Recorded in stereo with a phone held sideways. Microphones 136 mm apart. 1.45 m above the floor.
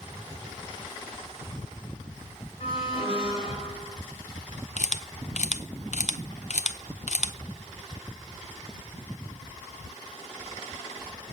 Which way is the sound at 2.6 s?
40° left (ahead or behind).